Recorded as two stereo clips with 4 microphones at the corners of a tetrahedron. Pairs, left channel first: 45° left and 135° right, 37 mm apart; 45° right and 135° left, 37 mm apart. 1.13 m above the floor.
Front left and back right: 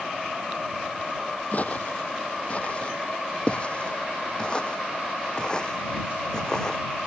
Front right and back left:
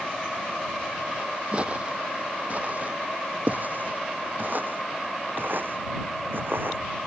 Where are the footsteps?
80° left; by 6.8 s 115° left.